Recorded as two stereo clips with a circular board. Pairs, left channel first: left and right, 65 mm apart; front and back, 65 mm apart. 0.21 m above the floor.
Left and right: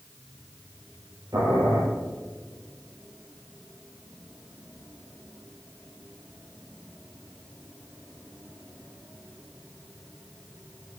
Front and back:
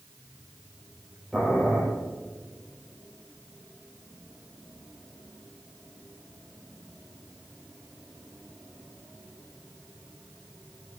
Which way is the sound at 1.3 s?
90° right.